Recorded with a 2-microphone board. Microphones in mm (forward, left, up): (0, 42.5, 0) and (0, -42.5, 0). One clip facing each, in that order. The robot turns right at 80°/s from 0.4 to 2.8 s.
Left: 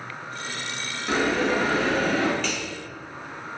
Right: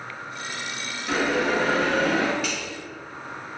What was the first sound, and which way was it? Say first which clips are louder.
A bell: even; 170° left.